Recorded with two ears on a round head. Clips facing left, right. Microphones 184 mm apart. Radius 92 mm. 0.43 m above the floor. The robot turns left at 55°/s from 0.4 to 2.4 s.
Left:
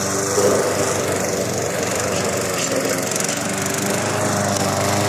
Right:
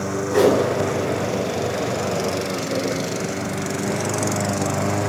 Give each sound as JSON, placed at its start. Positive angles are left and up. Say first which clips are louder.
{"t": 0.3, "sound": "a whoosh", "louder": "right 1 dB", "side_deg": -70, "distance_m": 3.0}